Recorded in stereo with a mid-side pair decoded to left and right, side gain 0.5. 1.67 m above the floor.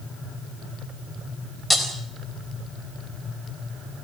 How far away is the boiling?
I don't hear boiling.